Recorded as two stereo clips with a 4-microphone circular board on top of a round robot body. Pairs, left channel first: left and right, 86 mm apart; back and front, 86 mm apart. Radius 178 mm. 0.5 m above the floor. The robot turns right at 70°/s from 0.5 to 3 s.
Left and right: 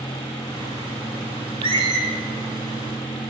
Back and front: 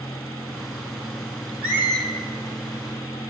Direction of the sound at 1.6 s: 80° right.